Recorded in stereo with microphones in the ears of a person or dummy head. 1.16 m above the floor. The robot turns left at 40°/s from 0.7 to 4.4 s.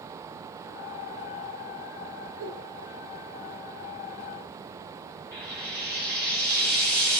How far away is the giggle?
About 1.1 m.